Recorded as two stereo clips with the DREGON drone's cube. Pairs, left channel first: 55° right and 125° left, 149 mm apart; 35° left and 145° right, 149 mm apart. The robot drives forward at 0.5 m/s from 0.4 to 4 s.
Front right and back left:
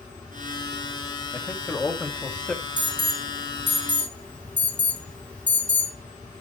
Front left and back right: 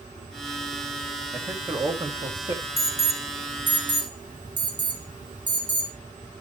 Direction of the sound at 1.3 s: 105° right.